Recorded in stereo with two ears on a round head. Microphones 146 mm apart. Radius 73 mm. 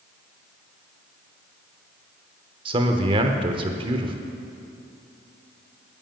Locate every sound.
2.6 s a man speaking: 30° right (ahead or behind), 0.8 m